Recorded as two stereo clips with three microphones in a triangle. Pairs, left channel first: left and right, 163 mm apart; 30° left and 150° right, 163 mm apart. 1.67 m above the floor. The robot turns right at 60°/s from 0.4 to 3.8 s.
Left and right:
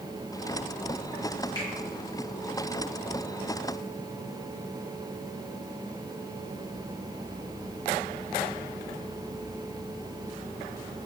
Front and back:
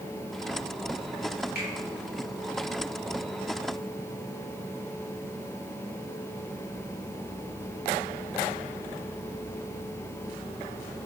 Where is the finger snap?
25° left, 1.5 m; by 1.7 s 35° left, 1.5 m.